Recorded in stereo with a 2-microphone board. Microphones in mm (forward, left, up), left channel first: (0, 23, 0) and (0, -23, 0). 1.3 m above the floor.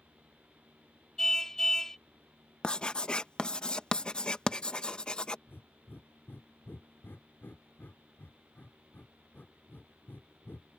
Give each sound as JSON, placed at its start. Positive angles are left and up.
{"t": 1.2, "sound": "a car horn", "side_deg": 10}
{"t": 2.6, "sound": "writing", "side_deg": 20}
{"t": 5.5, "sound": "breathing", "side_deg": 50}